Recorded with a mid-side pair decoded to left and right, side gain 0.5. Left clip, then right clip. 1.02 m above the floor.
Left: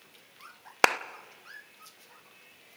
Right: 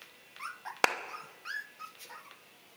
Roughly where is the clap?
Ahead left.